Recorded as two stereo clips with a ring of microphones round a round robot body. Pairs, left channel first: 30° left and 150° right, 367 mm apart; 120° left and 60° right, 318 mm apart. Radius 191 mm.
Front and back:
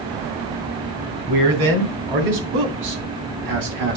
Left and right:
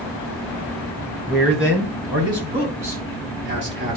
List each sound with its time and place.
1.3 s a man speaking: 150° right, 3.5 m; by 4.0 s 110° right, 3 m